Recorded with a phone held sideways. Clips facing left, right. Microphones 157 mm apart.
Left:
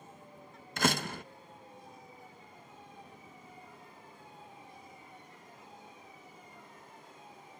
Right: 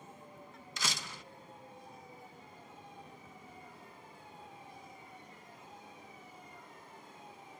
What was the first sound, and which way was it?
A door slam, 55° left (ahead or behind).